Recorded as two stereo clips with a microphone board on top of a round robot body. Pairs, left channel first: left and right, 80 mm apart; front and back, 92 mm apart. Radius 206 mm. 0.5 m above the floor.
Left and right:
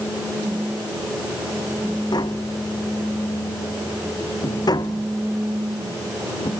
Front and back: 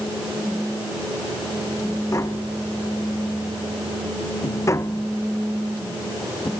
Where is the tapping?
60° left.